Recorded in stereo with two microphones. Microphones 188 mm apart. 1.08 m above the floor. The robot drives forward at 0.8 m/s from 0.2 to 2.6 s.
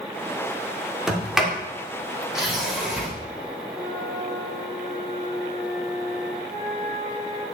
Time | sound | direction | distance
1.1 | a sliding door | centre (ahead or behind) | 1.9 m
3.7 | a flute | 15° right (ahead or behind) | 1.7 m
6.5 | a flute | 15° left (ahead or behind) | 2 m